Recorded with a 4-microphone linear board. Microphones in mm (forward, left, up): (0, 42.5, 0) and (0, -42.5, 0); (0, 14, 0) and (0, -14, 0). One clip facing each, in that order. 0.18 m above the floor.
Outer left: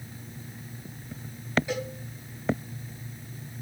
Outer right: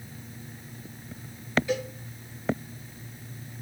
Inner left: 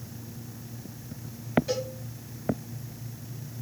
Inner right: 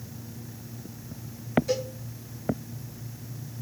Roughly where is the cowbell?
Centre.